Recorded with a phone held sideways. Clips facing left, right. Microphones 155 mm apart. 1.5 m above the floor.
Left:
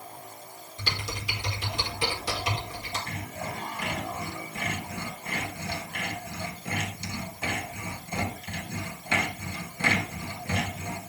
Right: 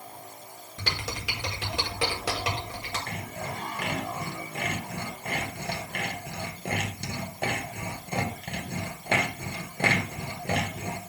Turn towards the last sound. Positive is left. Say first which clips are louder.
# even
turn(degrees=-55)  # may be behind; listen again after turning